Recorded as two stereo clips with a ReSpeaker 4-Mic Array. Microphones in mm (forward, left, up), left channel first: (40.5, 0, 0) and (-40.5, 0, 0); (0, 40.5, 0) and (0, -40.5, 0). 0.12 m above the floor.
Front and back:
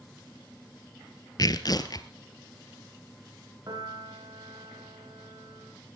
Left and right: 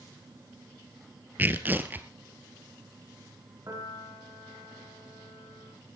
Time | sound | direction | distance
1.4 | tearing paper | 25° right | 1.5 m
3.7 | a piano | 140° right | 9 m